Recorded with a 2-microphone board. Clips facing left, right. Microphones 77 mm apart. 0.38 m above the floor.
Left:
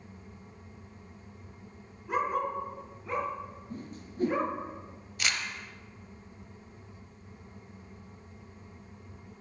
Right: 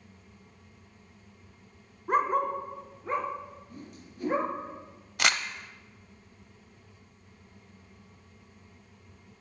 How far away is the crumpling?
About 0.6 m.